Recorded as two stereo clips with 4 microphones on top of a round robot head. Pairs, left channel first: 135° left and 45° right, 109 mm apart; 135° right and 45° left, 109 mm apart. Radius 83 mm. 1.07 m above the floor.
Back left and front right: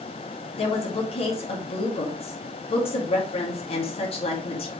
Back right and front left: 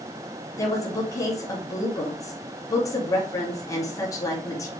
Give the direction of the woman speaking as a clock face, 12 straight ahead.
6 o'clock.